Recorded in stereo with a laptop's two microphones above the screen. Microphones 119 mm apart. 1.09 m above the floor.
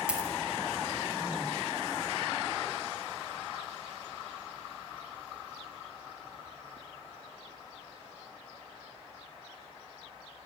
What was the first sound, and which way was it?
A dropped coin, 10° right (ahead or behind).